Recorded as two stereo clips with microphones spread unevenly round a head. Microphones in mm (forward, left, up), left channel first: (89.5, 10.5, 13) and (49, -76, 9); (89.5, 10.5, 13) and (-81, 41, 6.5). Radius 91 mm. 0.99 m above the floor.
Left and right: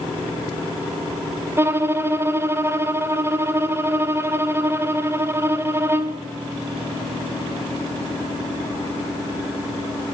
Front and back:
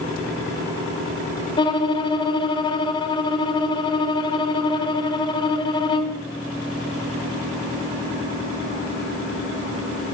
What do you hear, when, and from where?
1.6 s a violin: 65° right, 0.9 m